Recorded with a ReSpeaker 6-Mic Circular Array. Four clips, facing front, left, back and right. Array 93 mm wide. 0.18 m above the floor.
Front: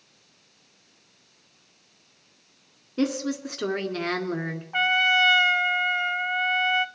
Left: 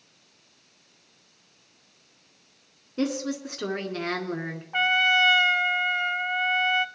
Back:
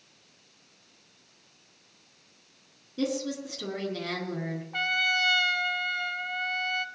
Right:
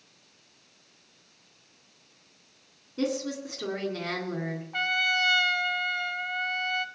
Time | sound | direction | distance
3.0 | a woman speaking | 25° left | 1.9 m
4.7 | a trumpet | 40° left | 0.5 m